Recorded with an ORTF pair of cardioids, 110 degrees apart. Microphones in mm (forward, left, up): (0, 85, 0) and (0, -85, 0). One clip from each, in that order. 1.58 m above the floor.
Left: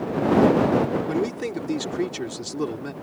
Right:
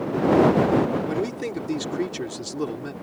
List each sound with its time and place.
1.1 s a man speaking: 5° left